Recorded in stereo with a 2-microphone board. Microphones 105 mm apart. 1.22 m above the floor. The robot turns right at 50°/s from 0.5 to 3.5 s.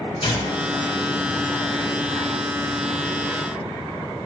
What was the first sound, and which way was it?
Tearing paper, 70° left (ahead or behind).